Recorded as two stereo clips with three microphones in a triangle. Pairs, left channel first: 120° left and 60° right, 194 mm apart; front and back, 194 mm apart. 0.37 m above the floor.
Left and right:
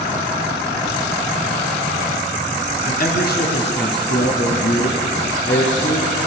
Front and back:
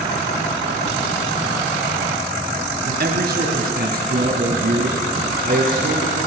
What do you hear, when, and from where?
2.8 s a man speaking: 155° left, 1.9 m; by 6.2 s 135° left, 6.5 m